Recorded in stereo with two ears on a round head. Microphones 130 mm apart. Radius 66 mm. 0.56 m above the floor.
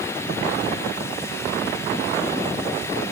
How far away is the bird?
No bird in this recording.